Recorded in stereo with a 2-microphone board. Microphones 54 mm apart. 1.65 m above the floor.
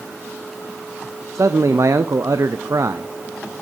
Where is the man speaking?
70° right (ahead or behind), 0.7 m.